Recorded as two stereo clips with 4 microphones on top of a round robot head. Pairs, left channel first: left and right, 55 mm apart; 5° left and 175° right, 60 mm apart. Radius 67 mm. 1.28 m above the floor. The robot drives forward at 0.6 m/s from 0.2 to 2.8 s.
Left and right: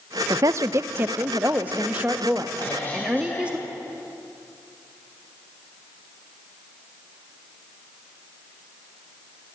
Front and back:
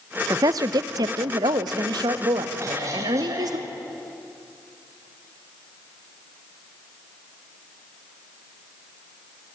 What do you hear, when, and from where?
0.3 s a woman speaking: 130° right, 0.6 m; by 3.6 s 165° right, 2.0 m
2.6 s a cough: 150° left, 7.5 m